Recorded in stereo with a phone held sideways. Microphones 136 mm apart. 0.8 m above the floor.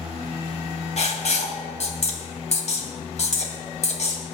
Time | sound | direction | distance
1.0 | writing | 55° left (ahead or behind) | 2 m